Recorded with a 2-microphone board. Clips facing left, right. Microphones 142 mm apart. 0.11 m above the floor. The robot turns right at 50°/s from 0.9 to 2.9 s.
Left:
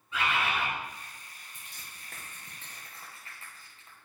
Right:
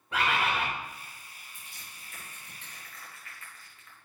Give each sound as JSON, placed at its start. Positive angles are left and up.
{"t": 0.1, "sound": "a bird", "side_deg": -70, "distance_m": 4.5}
{"t": 1.5, "sound": "crushing", "side_deg": 80, "distance_m": 5.0}